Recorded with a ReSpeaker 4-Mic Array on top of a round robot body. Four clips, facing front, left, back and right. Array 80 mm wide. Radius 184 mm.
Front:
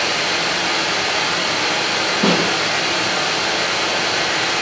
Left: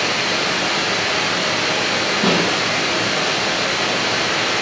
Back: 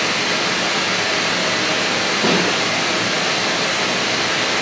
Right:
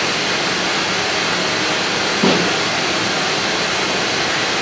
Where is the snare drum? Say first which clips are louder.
Right 3 dB, front 1 dB; 45° right, 0.8 m.